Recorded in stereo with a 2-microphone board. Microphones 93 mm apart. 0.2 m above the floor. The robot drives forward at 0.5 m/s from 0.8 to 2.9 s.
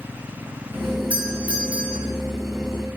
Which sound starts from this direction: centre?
A doorbell, at 1.1 s.